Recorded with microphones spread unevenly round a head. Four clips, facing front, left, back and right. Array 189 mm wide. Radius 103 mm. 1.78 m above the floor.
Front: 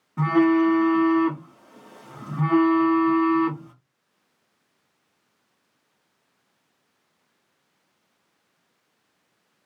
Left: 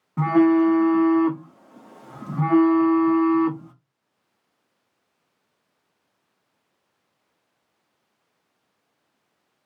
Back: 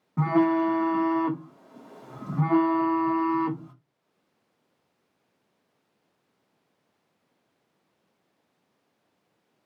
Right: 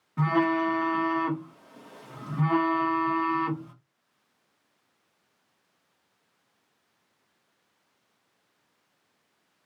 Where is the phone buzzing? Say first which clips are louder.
Left 8 dB, front 4 dB; 135° left, 0.5 m.